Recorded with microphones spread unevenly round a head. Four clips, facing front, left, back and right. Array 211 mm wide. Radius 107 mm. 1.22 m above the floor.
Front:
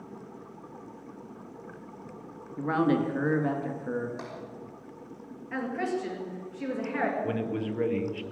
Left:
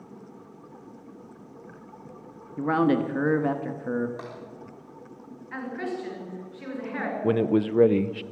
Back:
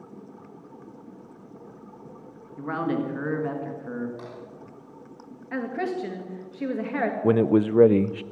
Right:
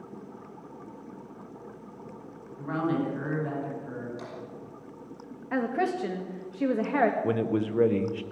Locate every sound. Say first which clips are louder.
2.6 s a man speaking: left 6 dB, front 2 dB; 75° left, 1.4 m
4.2 s tapping: left 2 dB, even; 55° left, 5.5 m
5.5 s a woman speaking: right 5 dB, back 2 dB; 115° right, 2.5 m
7.2 s a man speaking: left 4 dB, back 11 dB; 160° left, 0.6 m